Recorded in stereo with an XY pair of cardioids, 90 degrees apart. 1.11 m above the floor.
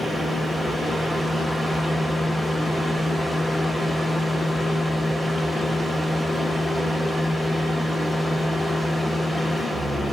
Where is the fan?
15° left, 0.8 m.